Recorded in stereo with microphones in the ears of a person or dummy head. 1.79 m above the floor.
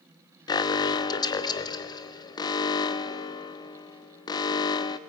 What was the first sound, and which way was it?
An alarm, 20° left (ahead or behind).